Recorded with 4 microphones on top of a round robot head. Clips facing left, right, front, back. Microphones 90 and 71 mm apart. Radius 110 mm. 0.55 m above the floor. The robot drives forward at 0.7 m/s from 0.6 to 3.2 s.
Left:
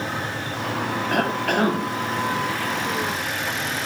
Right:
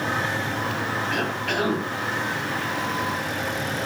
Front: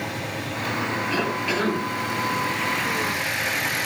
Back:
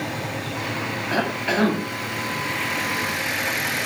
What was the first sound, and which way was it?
A cough, 130° left.